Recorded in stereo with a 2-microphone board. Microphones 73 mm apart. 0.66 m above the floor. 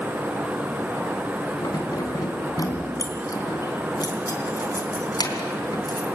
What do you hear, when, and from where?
1.6 s keys jangling: 60° left (ahead or behind), 3.5 m